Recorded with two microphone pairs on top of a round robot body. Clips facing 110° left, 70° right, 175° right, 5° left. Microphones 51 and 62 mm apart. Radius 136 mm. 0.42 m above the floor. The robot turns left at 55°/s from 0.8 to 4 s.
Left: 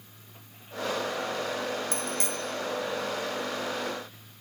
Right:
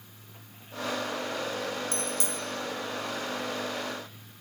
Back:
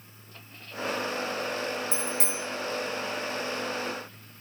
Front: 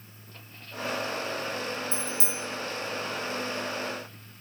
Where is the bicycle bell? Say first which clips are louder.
Left 1 dB, back 2 dB; 170° left, 3.5 m; by 2.4 s 140° left, 3.5 m.